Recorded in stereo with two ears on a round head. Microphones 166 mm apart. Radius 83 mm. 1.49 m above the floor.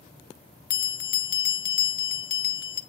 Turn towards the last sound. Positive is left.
turn(degrees=50)  # may be behind; listen again after turning